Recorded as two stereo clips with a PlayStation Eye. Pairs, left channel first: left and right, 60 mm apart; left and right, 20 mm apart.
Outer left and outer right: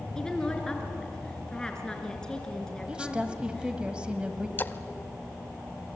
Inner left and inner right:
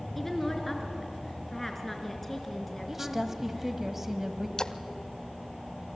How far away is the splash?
About 0.7 m.